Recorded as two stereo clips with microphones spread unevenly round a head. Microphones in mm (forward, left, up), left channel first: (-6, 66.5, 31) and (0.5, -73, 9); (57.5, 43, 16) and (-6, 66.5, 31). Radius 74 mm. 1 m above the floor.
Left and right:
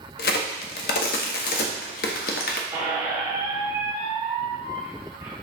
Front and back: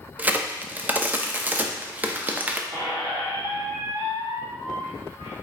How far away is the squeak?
About 1.6 m.